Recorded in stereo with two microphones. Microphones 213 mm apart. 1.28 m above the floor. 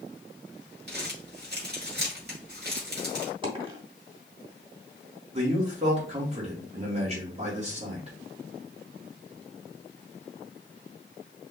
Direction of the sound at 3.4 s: 25° right (ahead or behind).